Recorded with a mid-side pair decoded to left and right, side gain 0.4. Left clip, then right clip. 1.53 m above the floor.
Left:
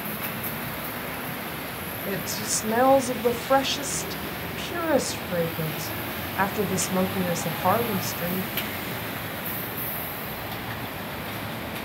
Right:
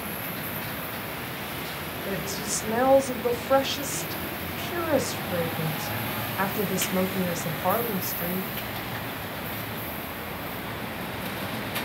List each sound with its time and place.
2.1 s a woman speaking: 25° left, 0.8 m